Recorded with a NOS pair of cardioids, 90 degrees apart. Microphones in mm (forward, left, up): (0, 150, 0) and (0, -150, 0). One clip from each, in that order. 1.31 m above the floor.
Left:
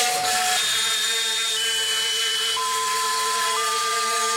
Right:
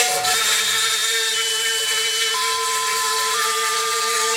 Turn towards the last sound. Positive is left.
turn(degrees=-25)